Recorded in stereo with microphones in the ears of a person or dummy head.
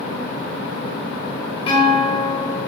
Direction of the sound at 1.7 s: 30° left (ahead or behind).